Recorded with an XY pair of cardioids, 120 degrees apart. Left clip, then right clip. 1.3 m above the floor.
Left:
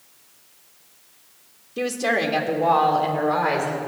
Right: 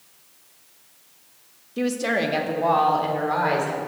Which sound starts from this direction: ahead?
A woman speaking, at 1.8 s.